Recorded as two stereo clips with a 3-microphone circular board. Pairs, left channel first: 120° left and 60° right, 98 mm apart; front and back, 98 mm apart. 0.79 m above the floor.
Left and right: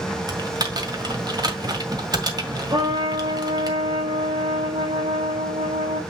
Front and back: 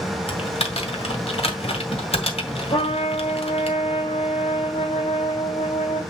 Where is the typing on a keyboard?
10° right, 2 m.